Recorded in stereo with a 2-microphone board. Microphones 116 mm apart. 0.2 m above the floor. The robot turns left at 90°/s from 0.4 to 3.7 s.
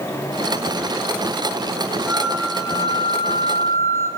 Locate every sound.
2.1 s a flute: 175° left, 3.5 m; by 4.1 s 25° left, 3.5 m